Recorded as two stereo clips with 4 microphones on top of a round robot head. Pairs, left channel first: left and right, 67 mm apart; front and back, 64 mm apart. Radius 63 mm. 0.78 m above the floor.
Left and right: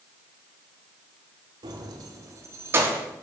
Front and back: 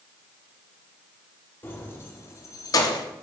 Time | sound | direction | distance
1.6 | keys jangling | 65° right | 1.3 m